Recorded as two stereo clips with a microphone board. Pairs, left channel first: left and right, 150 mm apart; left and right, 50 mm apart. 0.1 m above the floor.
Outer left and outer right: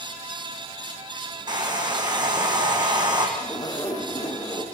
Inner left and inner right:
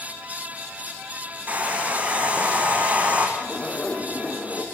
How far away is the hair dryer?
About 5 m.